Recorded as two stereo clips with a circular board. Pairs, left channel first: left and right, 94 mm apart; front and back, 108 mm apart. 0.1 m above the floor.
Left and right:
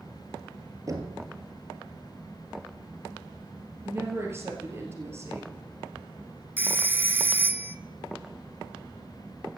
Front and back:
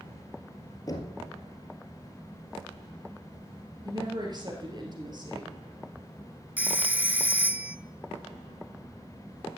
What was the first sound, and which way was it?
Knocking, 45° right.